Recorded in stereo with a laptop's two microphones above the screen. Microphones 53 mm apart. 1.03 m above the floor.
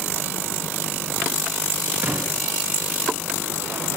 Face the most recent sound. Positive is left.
turn(degrees=-35)  # may be behind; listen again after turning